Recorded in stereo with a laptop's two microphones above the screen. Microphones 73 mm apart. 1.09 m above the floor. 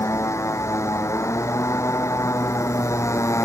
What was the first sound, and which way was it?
A motorcycle, 40° left (ahead or behind).